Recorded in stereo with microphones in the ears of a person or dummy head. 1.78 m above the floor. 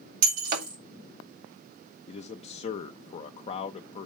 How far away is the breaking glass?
About 3.5 m.